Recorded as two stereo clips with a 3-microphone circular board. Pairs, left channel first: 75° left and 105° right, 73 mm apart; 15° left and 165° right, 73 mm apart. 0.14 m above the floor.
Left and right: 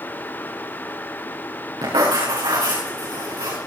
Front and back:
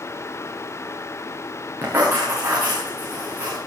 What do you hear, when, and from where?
1.8 s writing: 100° right, 6.5 m